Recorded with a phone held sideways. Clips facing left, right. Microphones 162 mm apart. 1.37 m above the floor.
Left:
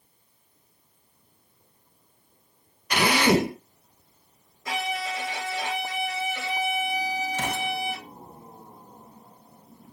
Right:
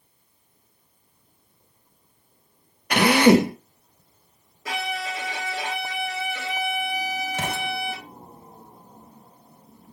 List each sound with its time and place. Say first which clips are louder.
2.9 s a drill: right 6 dB; 60° right (ahead or behind), 1.3 m
4.7 s a violin: even; 80° right, 3.5 m
7.3 s an explosion: even; 65° right (ahead or behind), 1.9 m